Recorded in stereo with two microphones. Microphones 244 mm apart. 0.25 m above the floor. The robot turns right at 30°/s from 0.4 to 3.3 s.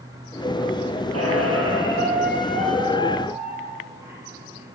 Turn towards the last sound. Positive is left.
turn(degrees=-10)